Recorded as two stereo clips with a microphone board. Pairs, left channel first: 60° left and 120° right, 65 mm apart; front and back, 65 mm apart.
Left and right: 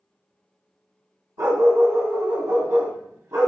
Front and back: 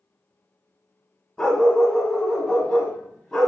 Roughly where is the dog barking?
Right.